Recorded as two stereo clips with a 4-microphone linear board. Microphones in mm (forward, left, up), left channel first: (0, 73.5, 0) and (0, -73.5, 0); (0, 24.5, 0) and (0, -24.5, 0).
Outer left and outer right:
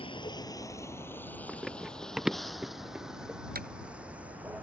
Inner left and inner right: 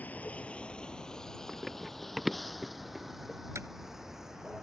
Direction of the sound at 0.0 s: 35° left (ahead or behind).